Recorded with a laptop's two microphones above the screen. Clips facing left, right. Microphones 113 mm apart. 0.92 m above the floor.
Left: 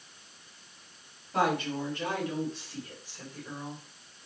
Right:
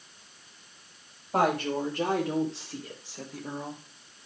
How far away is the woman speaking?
About 4.5 m.